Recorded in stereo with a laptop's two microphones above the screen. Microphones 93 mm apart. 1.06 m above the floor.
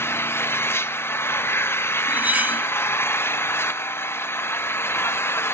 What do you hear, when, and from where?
0.0 s an engine running: 25° left (ahead or behind), 0.9 m
2.1 s cutlery clinking: 15° right (ahead or behind), 1.4 m